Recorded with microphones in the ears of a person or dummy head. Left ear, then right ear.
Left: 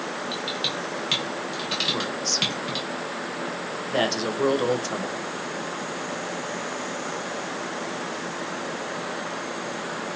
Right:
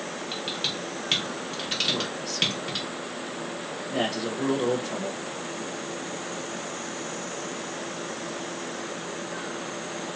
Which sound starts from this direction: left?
A man speaking, at 1.9 s.